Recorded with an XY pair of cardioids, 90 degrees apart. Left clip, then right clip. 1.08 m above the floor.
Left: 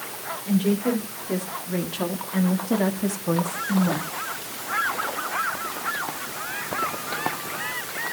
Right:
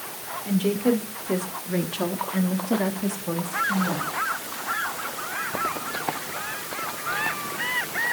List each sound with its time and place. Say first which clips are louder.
0.5 s a woman speaking: right 1 dB; 40° right, 4 m; by 4.1 s 50° left, 2.5 m